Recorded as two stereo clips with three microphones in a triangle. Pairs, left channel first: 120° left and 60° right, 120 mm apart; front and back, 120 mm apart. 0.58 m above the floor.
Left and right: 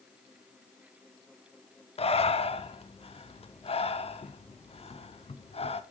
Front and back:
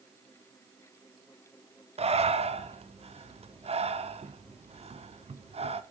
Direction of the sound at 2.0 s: 150° left.